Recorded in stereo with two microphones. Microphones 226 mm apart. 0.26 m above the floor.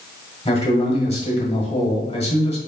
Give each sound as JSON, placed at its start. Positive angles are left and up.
{"t": 0.5, "sound": "a man speaking", "side_deg": 25, "distance_m": 1.2}